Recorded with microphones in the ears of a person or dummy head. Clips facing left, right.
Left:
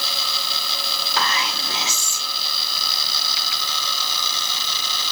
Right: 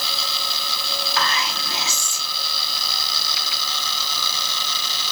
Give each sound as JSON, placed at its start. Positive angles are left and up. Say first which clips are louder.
{"t": 1.2, "sound": "whispering", "louder": "left 1 dB", "side_deg": 20, "distance_m": 0.8}